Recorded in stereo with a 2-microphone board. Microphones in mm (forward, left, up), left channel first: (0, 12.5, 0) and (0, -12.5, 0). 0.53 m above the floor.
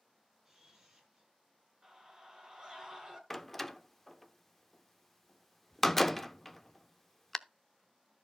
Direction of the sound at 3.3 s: 10° left (ahead or behind).